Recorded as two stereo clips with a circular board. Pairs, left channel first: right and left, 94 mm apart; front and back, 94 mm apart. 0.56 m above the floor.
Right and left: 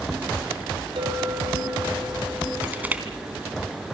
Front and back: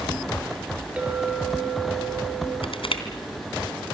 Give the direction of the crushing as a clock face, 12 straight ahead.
11 o'clock.